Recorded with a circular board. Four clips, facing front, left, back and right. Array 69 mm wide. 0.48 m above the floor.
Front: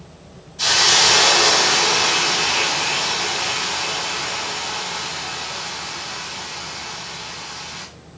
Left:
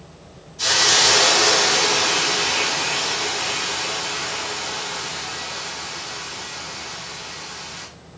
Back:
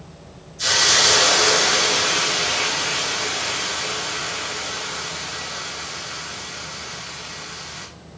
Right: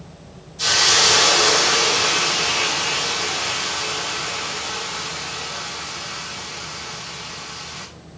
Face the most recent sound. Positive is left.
turn(degrees=-5)